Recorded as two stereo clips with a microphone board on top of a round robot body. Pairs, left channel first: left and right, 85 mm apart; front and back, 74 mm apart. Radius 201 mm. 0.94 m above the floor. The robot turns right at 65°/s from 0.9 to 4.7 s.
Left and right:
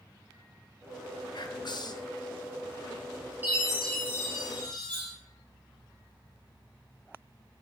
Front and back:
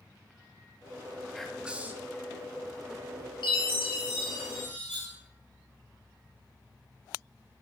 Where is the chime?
20° right, 0.7 m; by 5.1 s 60° left, 0.7 m.